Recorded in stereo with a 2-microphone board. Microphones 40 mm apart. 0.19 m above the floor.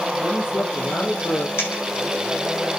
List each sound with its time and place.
0.2 s a man speaking: 75° left (ahead or behind), 4.5 m
1.6 s a dropped coin: 85° left, 6 m